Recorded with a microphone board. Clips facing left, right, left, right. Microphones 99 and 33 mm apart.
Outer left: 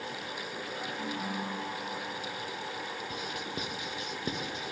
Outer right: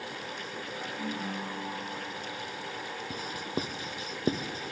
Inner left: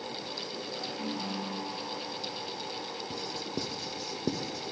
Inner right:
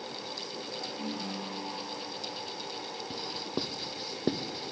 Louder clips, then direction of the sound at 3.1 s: Outer right 2 dB, inner right 2 dB; 35° right (ahead or behind).